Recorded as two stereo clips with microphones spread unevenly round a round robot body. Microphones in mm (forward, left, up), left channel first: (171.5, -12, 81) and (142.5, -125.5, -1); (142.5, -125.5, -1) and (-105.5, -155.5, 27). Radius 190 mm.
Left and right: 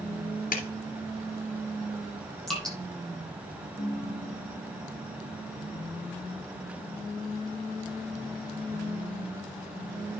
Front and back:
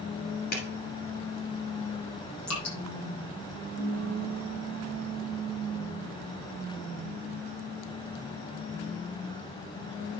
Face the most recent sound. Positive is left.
turn(degrees=60)